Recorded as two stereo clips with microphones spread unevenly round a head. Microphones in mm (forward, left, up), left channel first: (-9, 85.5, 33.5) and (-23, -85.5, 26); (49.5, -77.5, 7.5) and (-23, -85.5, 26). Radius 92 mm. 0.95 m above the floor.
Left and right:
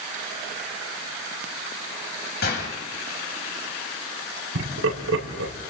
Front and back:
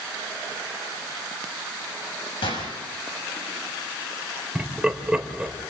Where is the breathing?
I don't hear breathing.